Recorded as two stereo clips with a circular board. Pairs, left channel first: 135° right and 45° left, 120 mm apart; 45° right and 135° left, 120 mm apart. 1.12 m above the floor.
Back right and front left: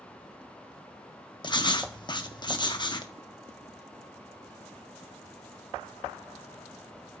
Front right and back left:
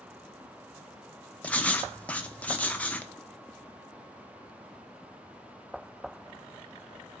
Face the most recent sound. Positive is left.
turn(degrees=-115)